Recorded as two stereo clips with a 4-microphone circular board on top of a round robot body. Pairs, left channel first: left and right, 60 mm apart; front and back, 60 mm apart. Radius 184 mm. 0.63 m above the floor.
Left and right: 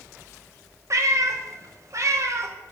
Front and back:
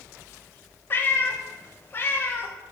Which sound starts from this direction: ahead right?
A cat meowing, at 0.9 s.